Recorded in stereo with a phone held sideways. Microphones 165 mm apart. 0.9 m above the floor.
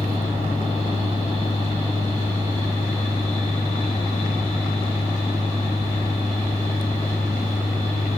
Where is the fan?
40° left (ahead or behind), 3.5 m.